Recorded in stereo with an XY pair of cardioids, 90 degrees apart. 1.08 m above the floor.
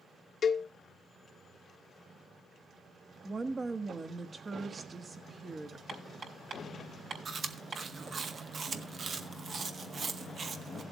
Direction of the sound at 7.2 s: 50° right.